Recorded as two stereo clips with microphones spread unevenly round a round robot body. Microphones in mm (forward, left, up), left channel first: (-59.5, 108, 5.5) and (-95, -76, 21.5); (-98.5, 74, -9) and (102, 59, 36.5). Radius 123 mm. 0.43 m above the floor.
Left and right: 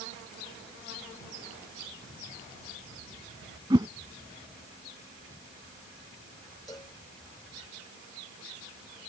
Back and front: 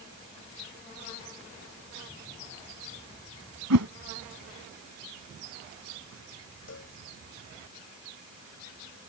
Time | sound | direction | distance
3.7 | a whoosh | 25° right | ?
6.7 | a cowbell | 150° left | ?